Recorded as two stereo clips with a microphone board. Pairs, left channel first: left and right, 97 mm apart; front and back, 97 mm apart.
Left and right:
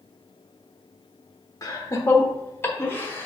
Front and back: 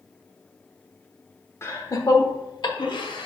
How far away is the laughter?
About 0.9 m.